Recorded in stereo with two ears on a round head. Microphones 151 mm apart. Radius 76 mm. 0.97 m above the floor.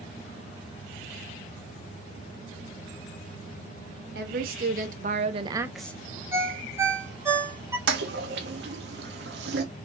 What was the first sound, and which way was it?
A woman speaking, 65° right (ahead or behind).